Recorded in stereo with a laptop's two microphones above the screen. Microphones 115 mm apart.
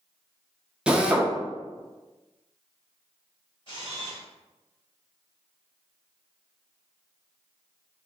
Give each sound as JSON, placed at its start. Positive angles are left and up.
{"t": 0.9, "sound": "a drill", "side_deg": -10, "distance_m": 0.6}
{"t": 3.7, "sound": "a camera shutter", "side_deg": 45, "distance_m": 0.9}